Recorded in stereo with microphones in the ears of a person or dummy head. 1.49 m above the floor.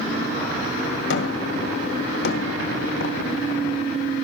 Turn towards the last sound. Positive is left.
turn(degrees=75)  # may be behind; listen again after turning